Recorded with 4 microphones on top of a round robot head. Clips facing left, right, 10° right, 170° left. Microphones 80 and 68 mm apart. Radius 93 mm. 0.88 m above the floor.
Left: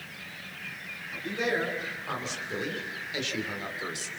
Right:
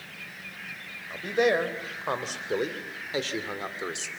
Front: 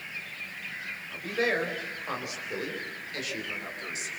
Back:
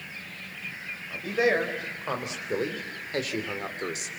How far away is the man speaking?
About 4.5 m.